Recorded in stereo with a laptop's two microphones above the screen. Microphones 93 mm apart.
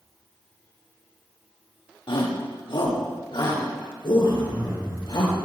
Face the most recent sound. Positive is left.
turn(degrees=-40)  # may be behind; listen again after turning